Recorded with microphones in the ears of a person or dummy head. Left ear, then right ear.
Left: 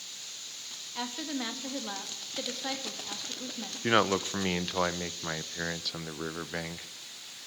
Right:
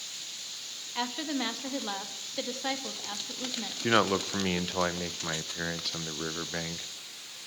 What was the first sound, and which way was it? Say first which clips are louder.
A woman speaking: right 3 dB; 5° right (ahead or behind).